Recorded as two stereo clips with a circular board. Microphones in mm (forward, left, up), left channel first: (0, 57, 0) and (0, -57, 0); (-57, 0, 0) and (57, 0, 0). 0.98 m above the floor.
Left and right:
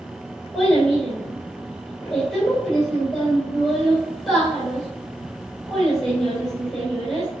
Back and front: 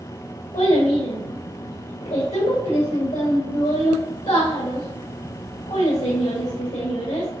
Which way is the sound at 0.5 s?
Straight behind.